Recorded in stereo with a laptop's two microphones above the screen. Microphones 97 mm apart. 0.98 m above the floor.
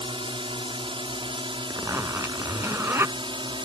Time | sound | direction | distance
0.0 | a drone | 65° right (ahead or behind) | ?
1.7 | a zipper | 30° right (ahead or behind) | ?